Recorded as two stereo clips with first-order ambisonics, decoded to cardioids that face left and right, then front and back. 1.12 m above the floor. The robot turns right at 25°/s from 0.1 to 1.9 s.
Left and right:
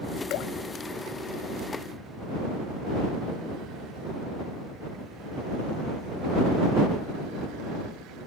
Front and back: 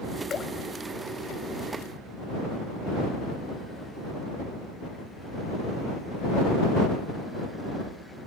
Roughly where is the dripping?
Ahead left.